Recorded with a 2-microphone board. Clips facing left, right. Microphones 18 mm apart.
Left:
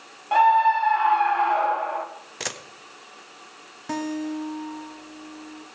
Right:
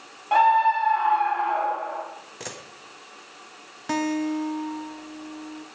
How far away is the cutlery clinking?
I don't hear cutlery clinking.